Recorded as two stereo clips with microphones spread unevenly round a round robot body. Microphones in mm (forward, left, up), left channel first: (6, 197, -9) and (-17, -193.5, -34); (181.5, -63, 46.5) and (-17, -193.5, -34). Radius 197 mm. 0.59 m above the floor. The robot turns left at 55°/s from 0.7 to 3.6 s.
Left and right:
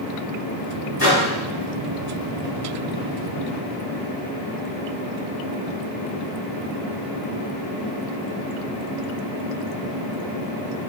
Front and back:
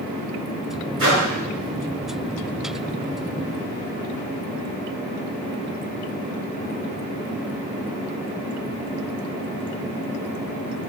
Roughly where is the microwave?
Behind.